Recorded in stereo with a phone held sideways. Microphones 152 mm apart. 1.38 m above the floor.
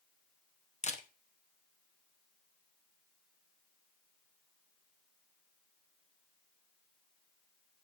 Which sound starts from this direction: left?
A camera shutter, at 0.8 s.